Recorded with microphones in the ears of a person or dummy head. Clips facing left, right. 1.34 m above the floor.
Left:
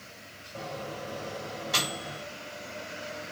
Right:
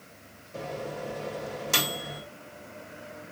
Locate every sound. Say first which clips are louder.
0.5 s a microwave: right 3 dB; 60° right (ahead or behind), 1.3 m